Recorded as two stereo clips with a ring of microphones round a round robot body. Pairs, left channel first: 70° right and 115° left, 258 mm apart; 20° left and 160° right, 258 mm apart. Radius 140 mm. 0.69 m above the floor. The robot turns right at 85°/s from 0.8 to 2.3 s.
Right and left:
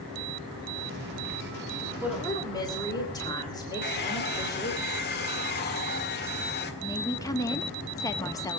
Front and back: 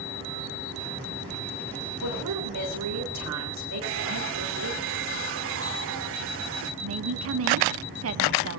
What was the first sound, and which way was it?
A woman speaking, 170° right.